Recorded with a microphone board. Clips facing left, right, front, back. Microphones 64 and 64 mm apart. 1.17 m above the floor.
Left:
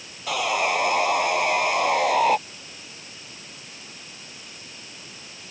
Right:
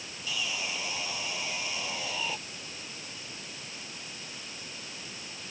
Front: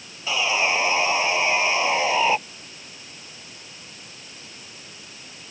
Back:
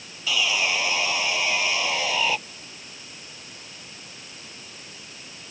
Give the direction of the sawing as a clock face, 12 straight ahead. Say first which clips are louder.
Left 13 dB, front 2 dB; 10 o'clock.